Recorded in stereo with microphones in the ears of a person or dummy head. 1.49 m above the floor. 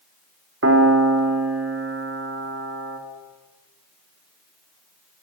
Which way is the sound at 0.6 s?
80° right.